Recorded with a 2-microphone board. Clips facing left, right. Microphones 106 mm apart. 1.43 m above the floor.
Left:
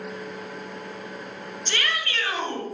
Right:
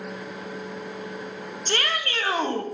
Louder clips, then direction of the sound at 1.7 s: Right 2 dB; 45° right (ahead or behind).